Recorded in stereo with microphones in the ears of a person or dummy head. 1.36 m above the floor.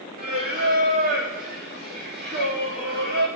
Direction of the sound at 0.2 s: 50° right (ahead or behind).